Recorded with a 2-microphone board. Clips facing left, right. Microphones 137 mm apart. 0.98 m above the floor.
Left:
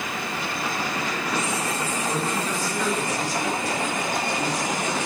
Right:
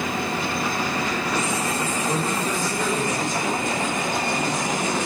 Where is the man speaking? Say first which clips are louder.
Right 1 dB; 25° right (ahead or behind), 2 m.